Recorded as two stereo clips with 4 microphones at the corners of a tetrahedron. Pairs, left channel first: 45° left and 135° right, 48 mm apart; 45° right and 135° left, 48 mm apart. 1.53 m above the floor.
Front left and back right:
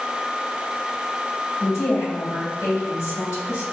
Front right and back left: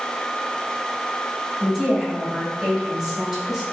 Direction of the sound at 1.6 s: 60° left.